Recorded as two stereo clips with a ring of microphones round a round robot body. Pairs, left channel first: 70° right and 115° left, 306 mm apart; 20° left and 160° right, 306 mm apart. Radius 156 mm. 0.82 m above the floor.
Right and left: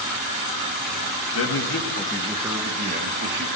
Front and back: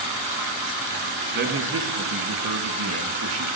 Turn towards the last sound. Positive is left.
turn(degrees=160)